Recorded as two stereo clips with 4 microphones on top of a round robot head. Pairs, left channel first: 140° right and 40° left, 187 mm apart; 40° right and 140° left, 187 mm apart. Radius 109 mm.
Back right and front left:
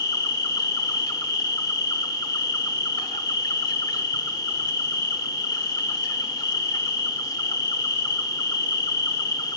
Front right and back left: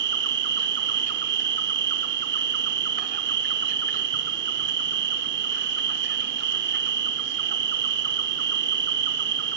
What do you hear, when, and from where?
0.0 s an insect: 150° left, 0.9 m